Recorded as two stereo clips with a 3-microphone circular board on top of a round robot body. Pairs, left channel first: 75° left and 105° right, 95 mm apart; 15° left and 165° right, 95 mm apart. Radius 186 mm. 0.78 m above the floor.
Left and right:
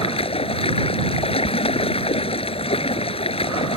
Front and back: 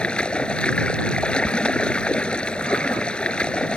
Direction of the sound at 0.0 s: 95° left.